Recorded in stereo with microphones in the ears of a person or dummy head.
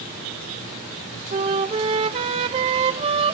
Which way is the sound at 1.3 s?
30° right (ahead or behind).